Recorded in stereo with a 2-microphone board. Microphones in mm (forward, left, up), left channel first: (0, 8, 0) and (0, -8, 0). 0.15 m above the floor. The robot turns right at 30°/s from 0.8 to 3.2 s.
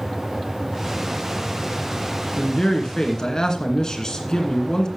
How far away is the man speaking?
About 2 m.